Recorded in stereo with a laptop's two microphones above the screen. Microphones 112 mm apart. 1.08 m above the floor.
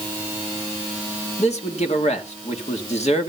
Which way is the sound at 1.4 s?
75° left (ahead or behind).